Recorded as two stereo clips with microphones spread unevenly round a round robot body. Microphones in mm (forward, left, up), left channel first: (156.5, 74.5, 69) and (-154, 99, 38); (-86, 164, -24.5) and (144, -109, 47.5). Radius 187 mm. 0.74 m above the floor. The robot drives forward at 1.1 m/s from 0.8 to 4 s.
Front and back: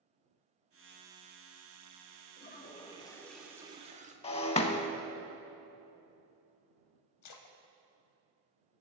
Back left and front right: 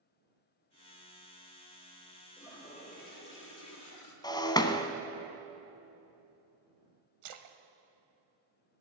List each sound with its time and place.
2.4 s a toilet flushing: 50° left, 2 m; by 4.1 s 115° left, 1.9 m
4.2 s breaking glass: 40° left, 0.7 m
7.2 s a splash: 30° right, 0.9 m